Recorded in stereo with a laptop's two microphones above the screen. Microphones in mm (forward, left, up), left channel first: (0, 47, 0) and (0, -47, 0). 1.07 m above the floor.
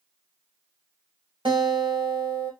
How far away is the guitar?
About 2 m.